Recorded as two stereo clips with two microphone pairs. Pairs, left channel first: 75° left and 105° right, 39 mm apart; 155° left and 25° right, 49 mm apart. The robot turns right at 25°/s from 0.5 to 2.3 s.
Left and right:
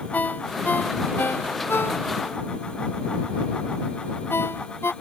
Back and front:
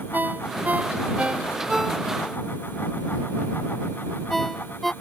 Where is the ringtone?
30° left; by 4.9 s 75° left.